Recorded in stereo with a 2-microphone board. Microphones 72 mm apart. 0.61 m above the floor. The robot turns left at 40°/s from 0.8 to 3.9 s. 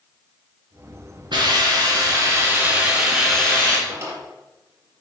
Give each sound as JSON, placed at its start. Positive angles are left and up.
{"t": 1.3, "sound": "a hiss", "azimuth_deg": -100, "distance_m": 4.5}
{"t": 3.9, "sound": "a drawer", "side_deg": -40, "distance_m": 4.0}